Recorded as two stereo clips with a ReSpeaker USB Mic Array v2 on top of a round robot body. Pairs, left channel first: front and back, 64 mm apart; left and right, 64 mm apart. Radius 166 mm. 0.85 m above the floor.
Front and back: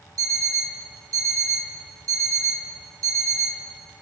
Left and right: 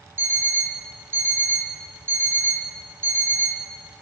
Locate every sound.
0.2 s an alarm clock: 150° right, 0.8 m